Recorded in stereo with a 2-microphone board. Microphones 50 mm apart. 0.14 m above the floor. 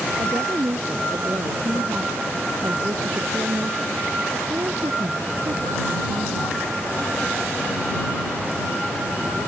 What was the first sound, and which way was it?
A woman speaking, 75° right (ahead or behind).